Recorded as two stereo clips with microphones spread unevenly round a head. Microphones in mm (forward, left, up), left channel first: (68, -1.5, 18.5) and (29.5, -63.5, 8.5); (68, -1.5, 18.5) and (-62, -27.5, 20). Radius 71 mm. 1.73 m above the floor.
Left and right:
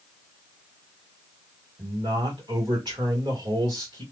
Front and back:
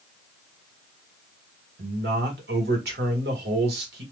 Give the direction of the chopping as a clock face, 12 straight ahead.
No chopping in this recording.